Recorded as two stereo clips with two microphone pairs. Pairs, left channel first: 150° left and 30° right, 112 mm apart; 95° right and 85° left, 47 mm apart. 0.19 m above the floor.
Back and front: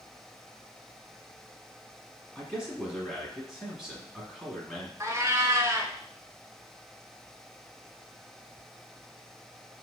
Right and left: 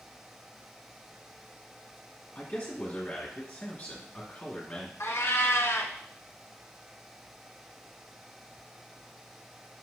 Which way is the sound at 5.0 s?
95° right.